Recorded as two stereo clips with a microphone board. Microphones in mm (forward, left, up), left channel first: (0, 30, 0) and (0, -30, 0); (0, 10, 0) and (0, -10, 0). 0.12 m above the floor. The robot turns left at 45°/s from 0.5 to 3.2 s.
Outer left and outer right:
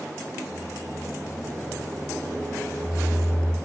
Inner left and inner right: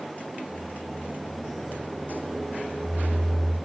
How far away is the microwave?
About 1.0 m.